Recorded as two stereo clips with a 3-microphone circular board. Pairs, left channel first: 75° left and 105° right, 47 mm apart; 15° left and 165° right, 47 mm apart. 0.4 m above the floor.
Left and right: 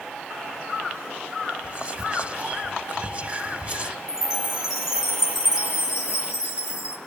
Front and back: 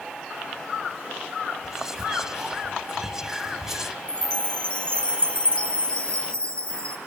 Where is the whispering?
95° right, 1.1 m.